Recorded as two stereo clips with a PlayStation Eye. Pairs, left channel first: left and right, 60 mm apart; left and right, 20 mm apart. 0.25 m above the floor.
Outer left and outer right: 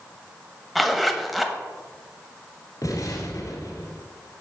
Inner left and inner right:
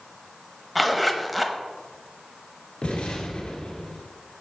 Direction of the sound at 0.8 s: Centre (ahead or behind).